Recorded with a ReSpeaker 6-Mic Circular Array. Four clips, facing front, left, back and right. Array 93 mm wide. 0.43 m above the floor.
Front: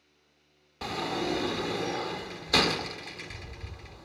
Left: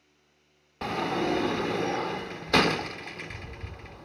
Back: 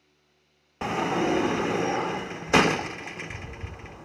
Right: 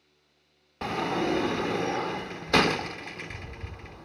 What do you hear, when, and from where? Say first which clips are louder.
0.8 s a sliding door: even, back 6 dB; 175° right, 0.5 m